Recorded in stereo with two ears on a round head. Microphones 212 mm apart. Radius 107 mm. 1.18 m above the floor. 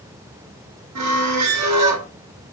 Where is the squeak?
75° right (ahead or behind), 1.4 m.